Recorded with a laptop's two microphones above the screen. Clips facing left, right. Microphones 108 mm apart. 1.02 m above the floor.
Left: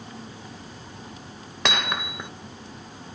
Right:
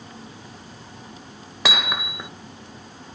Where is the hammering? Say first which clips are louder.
Right 1 dB; 5° right (ahead or behind).